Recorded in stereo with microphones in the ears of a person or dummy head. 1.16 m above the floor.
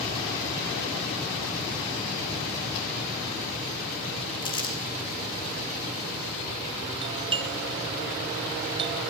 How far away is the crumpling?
About 2 m.